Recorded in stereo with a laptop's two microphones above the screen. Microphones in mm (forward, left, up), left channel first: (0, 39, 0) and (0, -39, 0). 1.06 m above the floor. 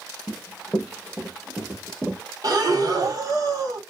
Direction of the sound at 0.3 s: 25° left (ahead or behind).